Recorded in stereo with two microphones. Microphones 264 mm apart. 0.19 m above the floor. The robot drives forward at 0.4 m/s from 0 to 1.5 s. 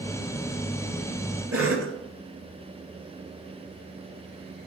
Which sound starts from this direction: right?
A cough, at 1.5 s.